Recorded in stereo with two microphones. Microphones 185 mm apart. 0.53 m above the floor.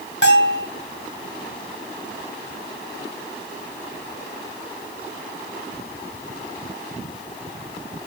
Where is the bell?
70° left (ahead or behind), 2.5 m.